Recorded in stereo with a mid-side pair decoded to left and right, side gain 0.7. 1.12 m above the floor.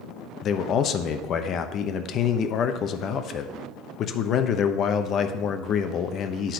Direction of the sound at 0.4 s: 45° left.